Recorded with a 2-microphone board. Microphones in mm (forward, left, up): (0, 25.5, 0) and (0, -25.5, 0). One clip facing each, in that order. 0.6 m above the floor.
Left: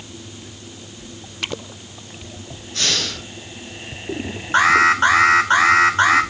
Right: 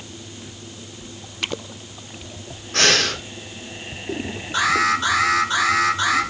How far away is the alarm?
About 2.5 m.